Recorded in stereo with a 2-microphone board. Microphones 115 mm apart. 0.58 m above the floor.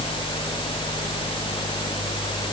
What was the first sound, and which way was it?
Only background noise.